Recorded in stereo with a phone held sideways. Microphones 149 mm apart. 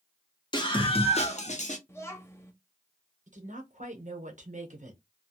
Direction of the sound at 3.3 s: 65° right (ahead or behind).